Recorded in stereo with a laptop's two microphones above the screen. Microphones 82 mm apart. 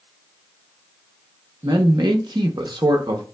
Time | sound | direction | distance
1.6 | a man speaking | 70° right (ahead or behind) | 0.7 m